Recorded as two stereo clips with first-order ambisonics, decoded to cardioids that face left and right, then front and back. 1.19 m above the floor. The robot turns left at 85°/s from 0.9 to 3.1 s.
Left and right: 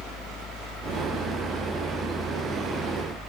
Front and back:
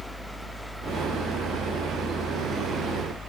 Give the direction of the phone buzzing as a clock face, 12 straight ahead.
I don't hear a phone buzzing.